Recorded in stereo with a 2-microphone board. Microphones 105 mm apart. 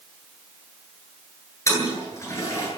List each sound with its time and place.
1.7 s a toilet flushing: 30° left (ahead or behind), 9.5 m